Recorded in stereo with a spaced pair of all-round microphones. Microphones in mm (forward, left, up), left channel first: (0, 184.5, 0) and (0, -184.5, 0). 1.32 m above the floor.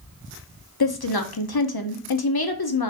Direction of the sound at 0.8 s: 80° left.